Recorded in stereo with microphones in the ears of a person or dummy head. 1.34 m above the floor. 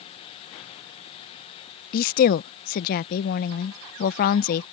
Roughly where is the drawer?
I don't hear a drawer.